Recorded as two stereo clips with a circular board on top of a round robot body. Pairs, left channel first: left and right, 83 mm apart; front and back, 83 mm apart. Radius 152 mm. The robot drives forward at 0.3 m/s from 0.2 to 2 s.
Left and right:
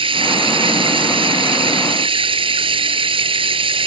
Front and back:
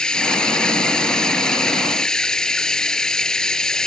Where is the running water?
80° right; by 3.9 s 85° right.